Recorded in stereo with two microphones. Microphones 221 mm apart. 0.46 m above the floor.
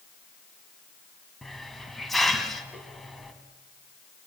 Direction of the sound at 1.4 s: Centre (ahead or behind).